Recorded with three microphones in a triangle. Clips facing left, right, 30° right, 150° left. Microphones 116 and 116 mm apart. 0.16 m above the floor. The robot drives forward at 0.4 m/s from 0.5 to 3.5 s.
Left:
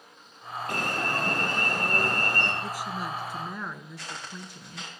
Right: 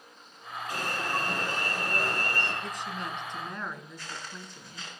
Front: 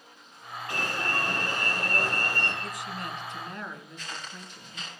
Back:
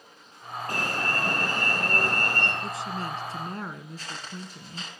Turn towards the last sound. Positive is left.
turn(degrees=95)